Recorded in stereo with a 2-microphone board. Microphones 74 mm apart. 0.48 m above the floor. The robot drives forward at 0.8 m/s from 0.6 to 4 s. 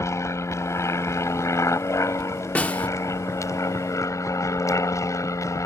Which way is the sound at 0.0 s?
40° left (ahead or behind).